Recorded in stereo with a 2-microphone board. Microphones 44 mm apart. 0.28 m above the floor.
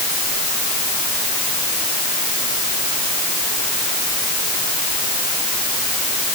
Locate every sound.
Only background noise.